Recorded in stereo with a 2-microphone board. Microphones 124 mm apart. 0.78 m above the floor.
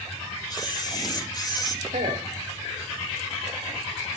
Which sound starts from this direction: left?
A camera shutter, at 0.5 s.